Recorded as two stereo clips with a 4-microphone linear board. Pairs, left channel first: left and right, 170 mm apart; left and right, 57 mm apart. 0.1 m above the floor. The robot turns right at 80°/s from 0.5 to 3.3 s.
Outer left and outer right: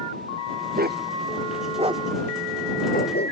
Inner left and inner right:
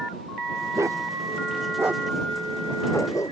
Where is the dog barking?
60° right (ahead or behind); by 3.3 s 80° left.